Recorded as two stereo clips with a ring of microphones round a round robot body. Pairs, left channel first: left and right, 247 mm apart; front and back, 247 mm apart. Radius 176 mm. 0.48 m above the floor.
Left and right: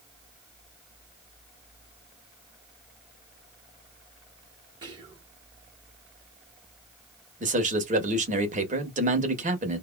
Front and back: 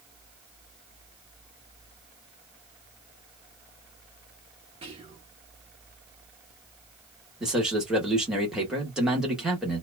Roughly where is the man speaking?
Right.